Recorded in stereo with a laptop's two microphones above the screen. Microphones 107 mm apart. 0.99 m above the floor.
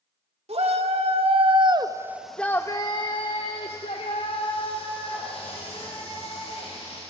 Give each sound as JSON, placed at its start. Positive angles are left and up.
{"t": 0.5, "sound": "a shout", "side_deg": -75, "distance_m": 2.0}